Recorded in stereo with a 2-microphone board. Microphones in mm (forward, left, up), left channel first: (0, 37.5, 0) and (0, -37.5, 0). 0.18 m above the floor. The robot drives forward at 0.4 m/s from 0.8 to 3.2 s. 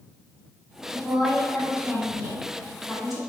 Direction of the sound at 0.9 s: 5° right (ahead or behind).